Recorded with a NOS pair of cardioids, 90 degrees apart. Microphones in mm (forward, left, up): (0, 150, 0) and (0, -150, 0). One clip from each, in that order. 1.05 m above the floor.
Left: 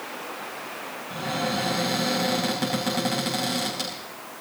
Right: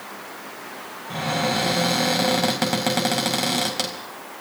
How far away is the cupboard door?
About 4 m.